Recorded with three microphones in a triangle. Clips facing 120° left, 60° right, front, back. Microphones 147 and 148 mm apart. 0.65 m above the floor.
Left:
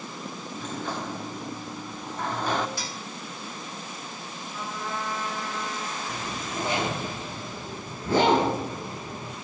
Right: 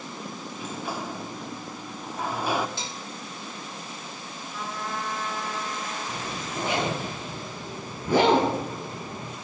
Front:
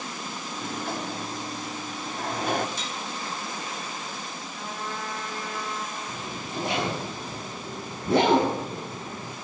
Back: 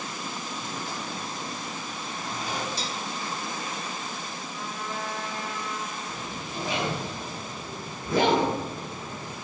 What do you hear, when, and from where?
0.5 s a sliding door: 20° left, 1.0 m
2.8 s dishes clattering: 125° right, 0.6 m
4.5 s a trumpet: 30° left, 7.5 m
6.1 s a zipper: 15° left, 7.5 m